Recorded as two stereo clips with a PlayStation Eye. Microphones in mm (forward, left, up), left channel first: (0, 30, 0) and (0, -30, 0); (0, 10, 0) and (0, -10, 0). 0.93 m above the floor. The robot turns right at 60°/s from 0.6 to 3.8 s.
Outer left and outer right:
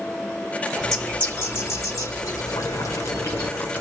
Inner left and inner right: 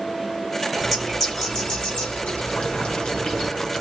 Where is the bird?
5° right, 3.5 m; by 3.5 s 165° left, 3.5 m.